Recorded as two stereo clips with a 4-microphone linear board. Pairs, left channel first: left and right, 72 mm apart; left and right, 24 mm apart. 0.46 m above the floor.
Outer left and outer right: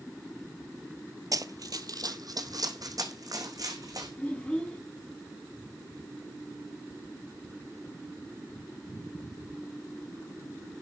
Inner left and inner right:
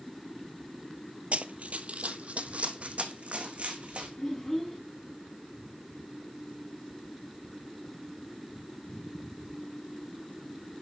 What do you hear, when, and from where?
1.3 s running footsteps: 55° right (ahead or behind), 0.6 m
4.2 s a child speaking: 15° left (ahead or behind), 3 m